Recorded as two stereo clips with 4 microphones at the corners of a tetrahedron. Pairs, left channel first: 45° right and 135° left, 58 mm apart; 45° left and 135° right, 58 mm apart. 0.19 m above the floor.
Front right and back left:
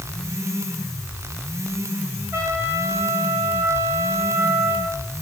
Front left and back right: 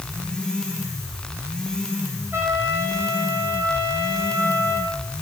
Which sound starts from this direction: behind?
A trumpet, at 2.3 s.